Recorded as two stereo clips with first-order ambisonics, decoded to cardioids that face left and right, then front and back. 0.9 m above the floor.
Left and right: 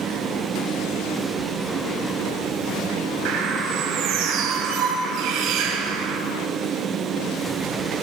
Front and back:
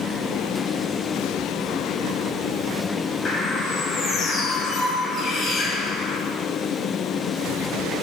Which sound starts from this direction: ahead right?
A bird, at 3.2 s.